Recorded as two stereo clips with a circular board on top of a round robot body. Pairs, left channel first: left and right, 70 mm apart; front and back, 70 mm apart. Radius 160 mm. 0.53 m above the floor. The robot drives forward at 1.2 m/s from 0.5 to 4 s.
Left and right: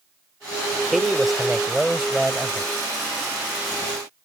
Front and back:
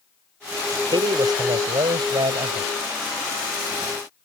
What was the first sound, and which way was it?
A man speaking, straight behind.